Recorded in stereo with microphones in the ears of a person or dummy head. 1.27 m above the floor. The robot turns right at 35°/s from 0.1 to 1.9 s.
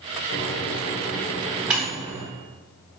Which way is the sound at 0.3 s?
40° left (ahead or behind).